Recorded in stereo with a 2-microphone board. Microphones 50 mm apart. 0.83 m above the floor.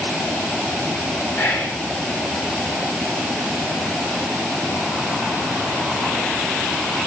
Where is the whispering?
70° left (ahead or behind), 2.5 m.